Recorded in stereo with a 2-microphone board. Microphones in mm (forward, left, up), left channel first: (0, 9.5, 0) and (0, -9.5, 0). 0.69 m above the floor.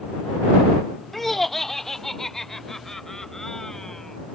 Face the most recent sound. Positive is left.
turn(degrees=25)  # may be behind; listen again after turning